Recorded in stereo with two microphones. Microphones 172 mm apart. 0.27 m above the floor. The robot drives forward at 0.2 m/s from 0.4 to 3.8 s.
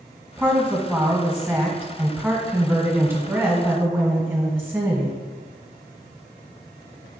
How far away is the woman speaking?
About 1.5 m.